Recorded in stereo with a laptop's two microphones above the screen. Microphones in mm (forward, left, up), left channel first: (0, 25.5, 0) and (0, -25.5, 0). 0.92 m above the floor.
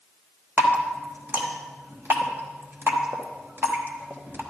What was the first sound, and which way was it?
Dripping, 45° right (ahead or behind).